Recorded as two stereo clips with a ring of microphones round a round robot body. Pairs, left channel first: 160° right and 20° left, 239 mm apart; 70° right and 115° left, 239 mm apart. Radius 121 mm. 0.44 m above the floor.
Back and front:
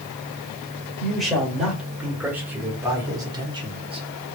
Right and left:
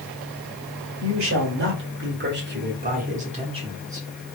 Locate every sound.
1.0 s a man speaking: 115° left, 2 m; by 4.1 s 50° left, 1.4 m